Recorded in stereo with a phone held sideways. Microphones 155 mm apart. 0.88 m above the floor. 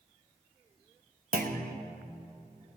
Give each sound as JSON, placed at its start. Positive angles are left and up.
{"t": 1.3, "sound": "a clunk", "side_deg": -70, "distance_m": 0.8}